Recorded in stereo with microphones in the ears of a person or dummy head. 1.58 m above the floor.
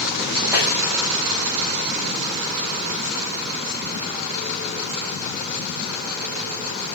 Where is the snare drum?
10° right (ahead or behind), 1.5 m.